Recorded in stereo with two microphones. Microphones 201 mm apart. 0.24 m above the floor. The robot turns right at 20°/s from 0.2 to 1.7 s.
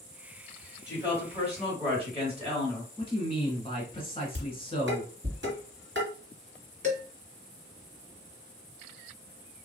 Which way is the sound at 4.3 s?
65° right (ahead or behind).